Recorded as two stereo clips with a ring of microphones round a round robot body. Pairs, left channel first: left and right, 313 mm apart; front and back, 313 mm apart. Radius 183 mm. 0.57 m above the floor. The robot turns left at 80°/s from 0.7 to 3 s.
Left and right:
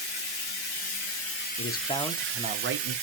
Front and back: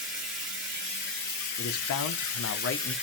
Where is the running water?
90° left, 2.5 m; by 3.0 s 95° right, 2.5 m.